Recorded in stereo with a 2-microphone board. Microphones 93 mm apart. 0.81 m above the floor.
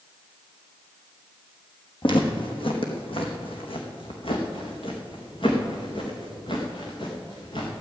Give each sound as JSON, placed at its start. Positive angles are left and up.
{"t": 2.0, "sound": "footsteps", "side_deg": 65, "distance_m": 2.5}